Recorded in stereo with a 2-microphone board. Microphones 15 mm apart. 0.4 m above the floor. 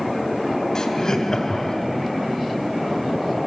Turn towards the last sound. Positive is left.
turn(degrees=50)  # may be behind; listen again after turning